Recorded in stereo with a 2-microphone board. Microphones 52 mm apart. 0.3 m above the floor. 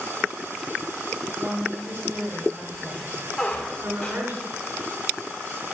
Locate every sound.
1.4 s a woman speaking: 50° right (ahead or behind), 3.5 m
3.4 s a squeak: 10° left (ahead or behind), 2.5 m